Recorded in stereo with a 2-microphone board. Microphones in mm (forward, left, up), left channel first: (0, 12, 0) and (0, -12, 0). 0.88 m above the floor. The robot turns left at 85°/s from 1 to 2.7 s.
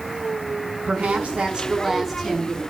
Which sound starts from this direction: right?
A woman speaking, at 0.9 s.